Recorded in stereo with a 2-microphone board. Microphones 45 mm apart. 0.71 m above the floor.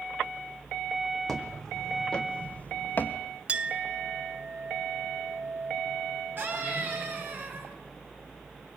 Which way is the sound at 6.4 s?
45° right (ahead or behind).